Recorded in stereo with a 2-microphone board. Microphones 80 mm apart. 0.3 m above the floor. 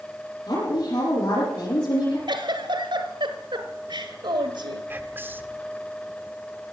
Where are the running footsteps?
I don't hear running footsteps.